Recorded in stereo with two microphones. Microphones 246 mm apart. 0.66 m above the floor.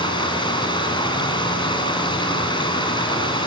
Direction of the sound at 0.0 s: 20° left (ahead or behind).